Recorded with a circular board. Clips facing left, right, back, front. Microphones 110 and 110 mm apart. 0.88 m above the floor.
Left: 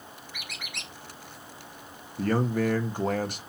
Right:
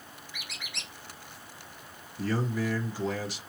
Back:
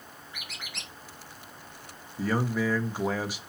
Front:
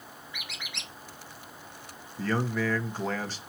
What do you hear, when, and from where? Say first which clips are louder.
0.3 s a squeak: left 2 dB, even; 130° left, 3.5 m
2.2 s a man speaking: left 5 dB, back 1 dB; 105° left, 1.4 m